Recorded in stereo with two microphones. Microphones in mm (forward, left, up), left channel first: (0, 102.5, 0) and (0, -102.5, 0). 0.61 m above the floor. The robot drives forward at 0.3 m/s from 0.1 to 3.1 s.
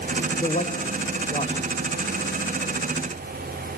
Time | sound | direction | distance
0.4 | a man speaking | 35° left (ahead or behind) | 1.7 m